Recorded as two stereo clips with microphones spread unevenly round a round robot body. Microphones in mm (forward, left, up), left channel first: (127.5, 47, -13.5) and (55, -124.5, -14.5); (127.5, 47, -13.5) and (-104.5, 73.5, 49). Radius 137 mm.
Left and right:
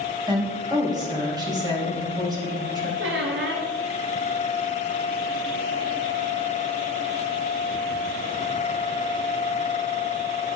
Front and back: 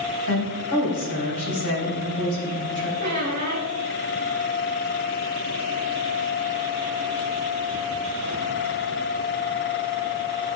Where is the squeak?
135° right, 1.2 m.